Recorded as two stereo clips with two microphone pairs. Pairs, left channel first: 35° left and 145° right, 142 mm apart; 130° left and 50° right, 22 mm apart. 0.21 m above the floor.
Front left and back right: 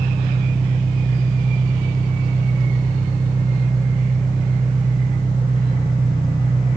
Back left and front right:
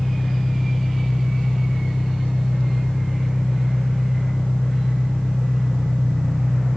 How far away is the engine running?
About 4.5 m.